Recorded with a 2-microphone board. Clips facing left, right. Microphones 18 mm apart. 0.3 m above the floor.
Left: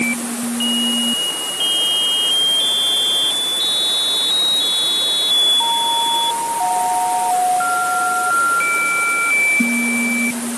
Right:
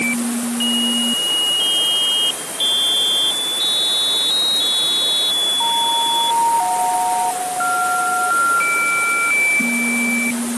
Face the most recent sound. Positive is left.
No sound to turn to.